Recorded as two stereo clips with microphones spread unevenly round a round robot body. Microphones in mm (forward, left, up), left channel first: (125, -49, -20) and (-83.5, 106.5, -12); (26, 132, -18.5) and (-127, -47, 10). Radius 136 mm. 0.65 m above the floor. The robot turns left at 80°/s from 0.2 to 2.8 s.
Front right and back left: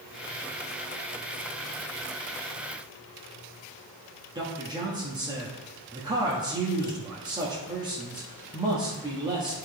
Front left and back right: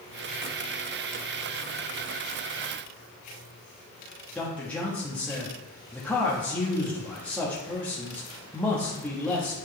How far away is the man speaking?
About 1.1 m.